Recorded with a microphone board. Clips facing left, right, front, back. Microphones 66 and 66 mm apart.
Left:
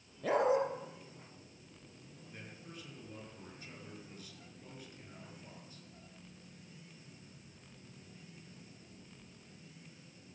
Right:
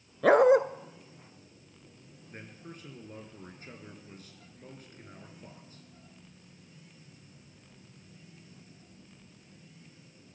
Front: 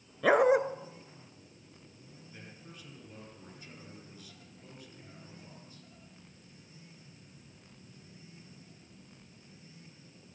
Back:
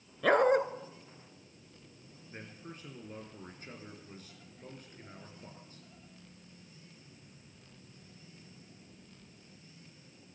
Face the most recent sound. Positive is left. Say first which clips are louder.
# right 5 dB, back 5 dB
turn(degrees=-135)